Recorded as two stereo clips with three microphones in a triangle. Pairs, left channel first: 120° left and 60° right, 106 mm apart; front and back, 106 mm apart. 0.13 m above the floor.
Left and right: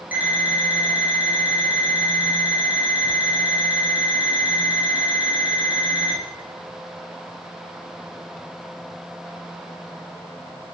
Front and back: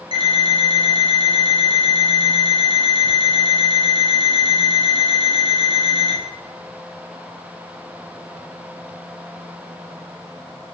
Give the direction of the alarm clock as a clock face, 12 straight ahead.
4 o'clock.